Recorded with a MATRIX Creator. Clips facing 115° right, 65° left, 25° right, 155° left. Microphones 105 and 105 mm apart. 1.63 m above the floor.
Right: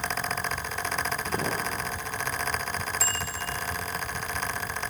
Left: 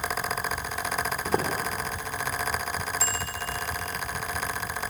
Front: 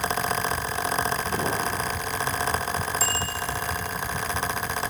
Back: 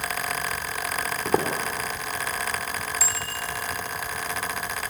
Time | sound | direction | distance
1.2 | footsteps | 125° left | 4.5 m
3.0 | a bicycle bell | 125° right | 3.5 m